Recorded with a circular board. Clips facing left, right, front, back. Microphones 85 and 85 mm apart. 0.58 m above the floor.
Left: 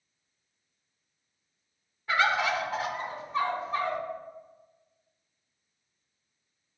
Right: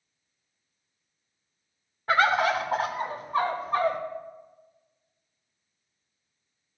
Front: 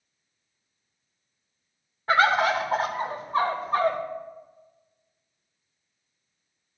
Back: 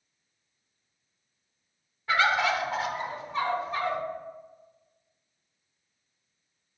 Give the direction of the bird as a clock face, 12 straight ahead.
2 o'clock.